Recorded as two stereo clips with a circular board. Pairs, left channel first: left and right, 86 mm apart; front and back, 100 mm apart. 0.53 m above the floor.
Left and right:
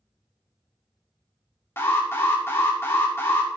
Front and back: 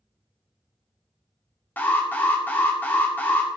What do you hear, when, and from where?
1.8 s an alarm: 55° left, 1.9 m